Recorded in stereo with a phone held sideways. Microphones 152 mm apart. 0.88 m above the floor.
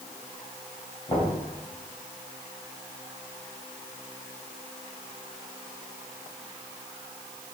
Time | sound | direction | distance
1.1 | knocking | 35° left (ahead or behind) | 4.5 m